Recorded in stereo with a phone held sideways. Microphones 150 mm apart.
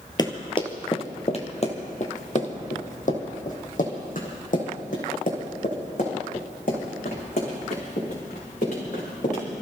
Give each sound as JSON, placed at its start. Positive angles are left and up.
{"t": 0.2, "sound": "running footsteps", "side_deg": 25, "distance_m": 1.8}